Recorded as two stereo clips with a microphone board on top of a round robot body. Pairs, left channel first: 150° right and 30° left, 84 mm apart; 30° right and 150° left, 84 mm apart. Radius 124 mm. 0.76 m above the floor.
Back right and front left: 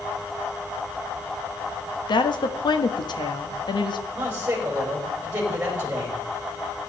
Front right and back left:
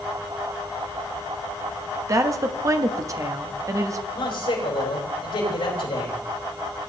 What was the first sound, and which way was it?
A woman speaking, 165° right.